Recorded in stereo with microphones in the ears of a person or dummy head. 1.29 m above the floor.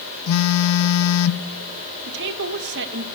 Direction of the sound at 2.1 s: 55° right (ahead or behind).